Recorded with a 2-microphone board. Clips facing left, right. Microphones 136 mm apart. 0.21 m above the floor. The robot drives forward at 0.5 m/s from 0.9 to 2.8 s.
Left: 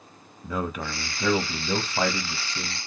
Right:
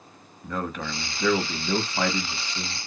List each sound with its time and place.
0.4 s a man speaking: 10° left (ahead or behind), 1.0 m